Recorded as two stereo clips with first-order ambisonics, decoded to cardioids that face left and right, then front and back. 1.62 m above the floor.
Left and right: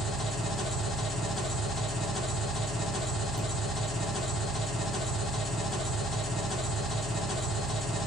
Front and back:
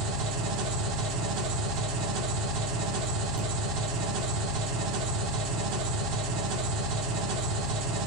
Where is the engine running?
160° left, 1.7 m.